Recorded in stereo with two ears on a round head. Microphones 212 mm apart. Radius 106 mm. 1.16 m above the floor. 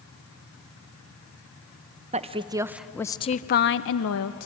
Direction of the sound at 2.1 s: 30° right (ahead or behind).